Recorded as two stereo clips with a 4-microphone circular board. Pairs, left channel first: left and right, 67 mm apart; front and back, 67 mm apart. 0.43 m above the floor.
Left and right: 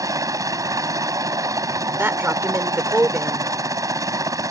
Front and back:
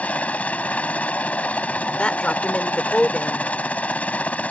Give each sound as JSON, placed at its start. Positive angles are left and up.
{"t": 0.0, "sound": "a helicopter", "azimuth_deg": -65}
{"t": 2.0, "sound": "a man speaking", "azimuth_deg": -60}